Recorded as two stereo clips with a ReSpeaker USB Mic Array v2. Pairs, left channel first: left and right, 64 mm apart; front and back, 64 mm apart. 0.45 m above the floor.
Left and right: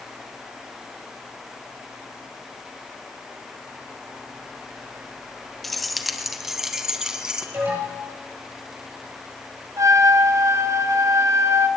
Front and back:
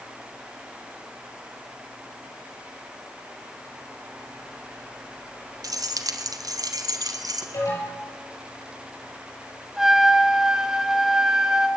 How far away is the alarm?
About 9.5 m.